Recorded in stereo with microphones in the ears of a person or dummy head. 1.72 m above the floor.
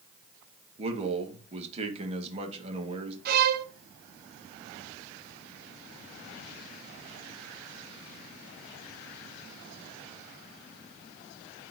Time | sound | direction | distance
0.8 | a man speaking | 35° right (ahead or behind) | 2.5 m
3.2 | a violin | 55° right (ahead or behind) | 1.1 m